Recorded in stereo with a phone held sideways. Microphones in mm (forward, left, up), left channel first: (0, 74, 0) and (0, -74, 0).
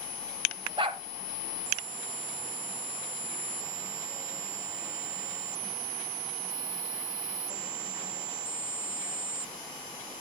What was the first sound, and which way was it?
A dog barking, 35° right (ahead or behind).